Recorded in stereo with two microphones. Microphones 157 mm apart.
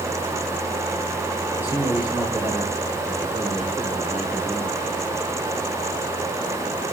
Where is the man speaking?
10° right (ahead or behind), 2 m.